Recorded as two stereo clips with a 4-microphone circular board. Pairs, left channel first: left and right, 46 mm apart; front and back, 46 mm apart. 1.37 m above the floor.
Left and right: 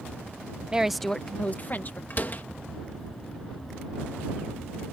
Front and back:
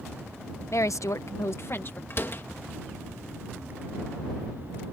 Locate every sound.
0.7 s a woman speaking: 20° right; by 2.0 s 45° left
2.1 s a door slam: 40° left